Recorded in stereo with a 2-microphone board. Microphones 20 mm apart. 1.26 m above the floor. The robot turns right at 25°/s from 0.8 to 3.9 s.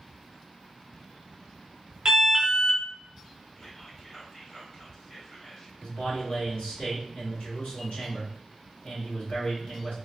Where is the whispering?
35° left (ahead or behind), 0.9 m; by 5.7 s 25° left (ahead or behind), 0.9 m.